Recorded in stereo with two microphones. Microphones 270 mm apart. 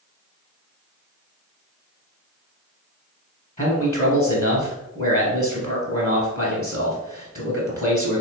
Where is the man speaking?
25° left (ahead or behind), 1.3 m.